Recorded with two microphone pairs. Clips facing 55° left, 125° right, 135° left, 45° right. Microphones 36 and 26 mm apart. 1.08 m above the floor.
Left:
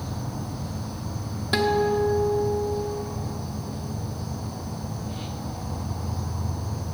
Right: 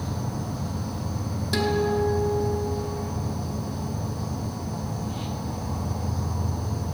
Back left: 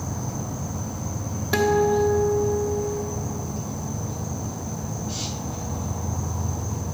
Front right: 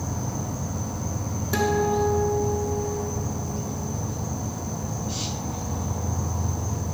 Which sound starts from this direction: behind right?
An insect, at 0.0 s.